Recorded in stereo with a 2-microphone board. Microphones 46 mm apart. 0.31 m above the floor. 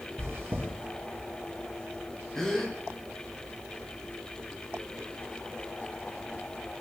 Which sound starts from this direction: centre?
A gasp, at 2.4 s.